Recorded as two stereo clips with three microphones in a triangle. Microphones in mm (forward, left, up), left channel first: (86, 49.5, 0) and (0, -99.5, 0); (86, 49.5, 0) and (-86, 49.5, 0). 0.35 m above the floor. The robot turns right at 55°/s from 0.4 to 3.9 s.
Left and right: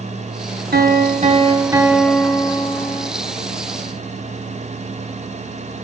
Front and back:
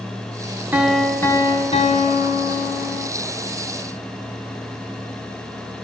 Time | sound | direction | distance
0.7 | a piano | 105° right | 1.3 m